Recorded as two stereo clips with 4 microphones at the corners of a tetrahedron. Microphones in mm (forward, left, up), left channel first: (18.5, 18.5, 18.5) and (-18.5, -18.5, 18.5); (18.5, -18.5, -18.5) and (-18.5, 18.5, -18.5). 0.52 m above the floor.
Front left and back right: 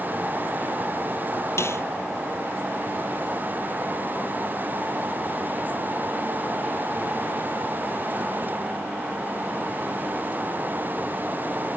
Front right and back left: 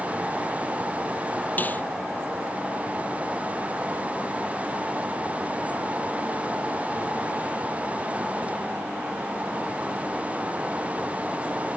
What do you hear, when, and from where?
1.6 s a snare drum: 10° left